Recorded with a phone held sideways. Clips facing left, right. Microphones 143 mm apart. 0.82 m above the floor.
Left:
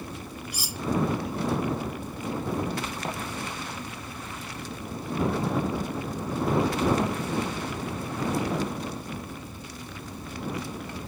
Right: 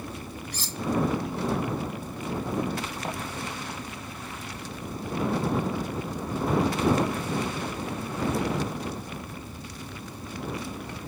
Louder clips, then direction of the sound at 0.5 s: Even; 10° left (ahead or behind).